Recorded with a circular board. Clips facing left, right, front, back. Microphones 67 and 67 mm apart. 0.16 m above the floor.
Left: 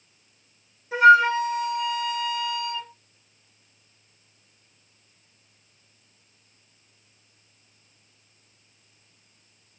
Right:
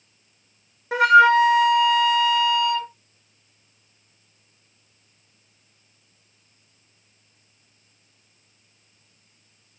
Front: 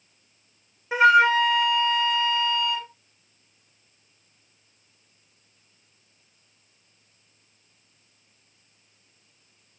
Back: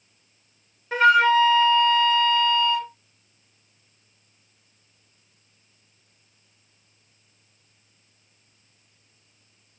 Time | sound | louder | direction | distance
0.9 | a flute | right 2 dB, even | 80° right | 0.7 m